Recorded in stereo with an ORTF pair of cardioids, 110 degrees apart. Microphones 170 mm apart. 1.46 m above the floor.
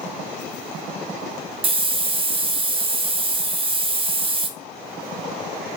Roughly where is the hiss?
Ahead right.